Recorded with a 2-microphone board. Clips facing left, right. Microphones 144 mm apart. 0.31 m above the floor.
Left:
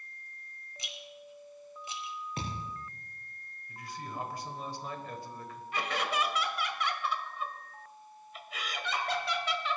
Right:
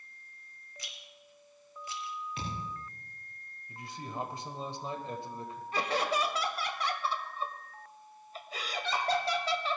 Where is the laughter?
35° right (ahead or behind), 1.1 m.